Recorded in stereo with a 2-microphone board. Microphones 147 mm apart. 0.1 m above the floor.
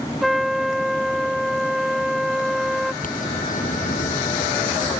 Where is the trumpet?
Centre (ahead or behind).